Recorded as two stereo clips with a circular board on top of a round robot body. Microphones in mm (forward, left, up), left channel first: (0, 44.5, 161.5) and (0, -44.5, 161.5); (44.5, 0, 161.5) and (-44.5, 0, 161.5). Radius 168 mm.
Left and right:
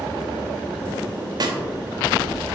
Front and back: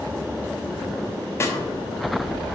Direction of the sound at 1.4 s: 55° right.